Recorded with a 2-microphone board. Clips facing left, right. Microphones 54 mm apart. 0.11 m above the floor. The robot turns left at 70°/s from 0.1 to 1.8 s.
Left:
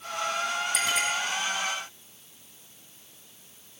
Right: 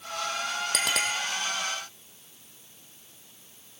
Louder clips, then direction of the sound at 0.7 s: Right 1 dB; 65° right (ahead or behind).